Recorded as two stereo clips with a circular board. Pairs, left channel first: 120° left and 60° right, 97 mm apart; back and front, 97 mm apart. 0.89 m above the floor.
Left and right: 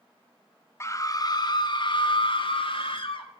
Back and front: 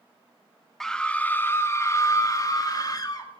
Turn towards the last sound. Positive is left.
turn(degrees=135)